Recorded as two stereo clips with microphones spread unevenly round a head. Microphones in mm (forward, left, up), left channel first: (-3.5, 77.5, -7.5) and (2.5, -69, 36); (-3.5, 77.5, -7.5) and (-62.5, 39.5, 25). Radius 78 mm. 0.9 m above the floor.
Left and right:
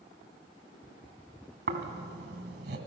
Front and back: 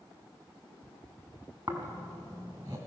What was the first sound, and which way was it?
Snoring, 95° right.